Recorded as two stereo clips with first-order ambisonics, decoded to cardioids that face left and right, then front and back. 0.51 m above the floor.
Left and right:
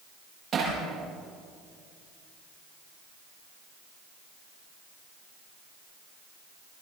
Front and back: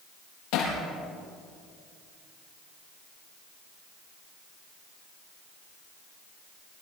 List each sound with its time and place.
0.5 s hammering: 30° right, 7.5 m